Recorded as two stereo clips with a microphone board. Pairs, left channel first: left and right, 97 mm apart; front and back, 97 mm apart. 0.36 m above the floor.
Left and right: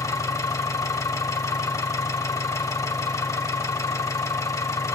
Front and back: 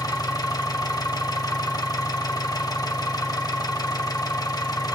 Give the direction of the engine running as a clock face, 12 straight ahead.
11 o'clock.